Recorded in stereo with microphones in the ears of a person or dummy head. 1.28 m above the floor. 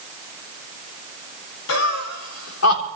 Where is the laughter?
85° left, 2.5 m.